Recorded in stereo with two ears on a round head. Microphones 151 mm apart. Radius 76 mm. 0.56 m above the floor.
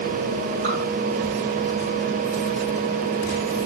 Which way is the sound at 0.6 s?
50° right (ahead or behind).